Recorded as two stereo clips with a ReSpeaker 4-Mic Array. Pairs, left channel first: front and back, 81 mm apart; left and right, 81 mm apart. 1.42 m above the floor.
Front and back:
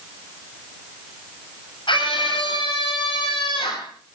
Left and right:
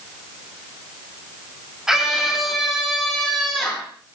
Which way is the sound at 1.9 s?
5° right.